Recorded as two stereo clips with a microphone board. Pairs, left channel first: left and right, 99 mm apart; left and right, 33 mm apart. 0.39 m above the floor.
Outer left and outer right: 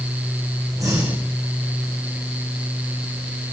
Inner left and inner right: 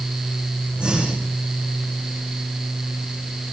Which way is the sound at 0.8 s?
35° right (ahead or behind).